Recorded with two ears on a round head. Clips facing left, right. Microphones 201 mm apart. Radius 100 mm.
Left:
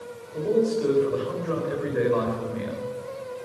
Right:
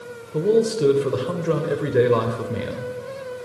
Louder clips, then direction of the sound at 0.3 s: Right 4 dB; 70° right (ahead or behind).